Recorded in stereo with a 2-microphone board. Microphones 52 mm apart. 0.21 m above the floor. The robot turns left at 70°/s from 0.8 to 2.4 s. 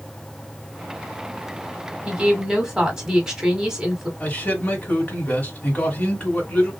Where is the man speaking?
30° left (ahead or behind), 1.3 m.